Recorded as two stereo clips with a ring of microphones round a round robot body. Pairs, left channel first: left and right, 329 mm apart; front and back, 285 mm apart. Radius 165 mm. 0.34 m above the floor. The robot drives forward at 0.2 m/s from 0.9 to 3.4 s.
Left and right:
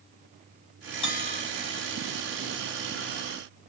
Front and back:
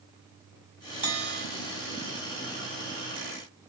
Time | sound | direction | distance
1.0 | a bell | 130° left | 3.5 m